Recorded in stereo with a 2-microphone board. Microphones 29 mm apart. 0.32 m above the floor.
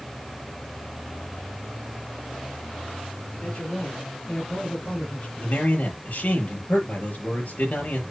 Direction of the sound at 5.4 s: 55° left (ahead or behind).